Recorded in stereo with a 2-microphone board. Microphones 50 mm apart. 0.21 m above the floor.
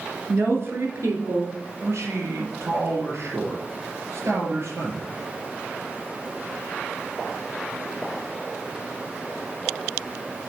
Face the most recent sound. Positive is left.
turn(degrees=-55)  # may be behind; listen again after turning